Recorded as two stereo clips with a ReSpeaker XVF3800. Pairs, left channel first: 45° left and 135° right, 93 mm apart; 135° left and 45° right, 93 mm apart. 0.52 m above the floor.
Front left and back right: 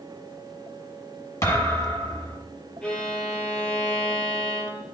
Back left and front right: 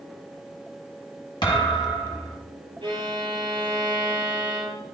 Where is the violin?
30° right, 4.5 m.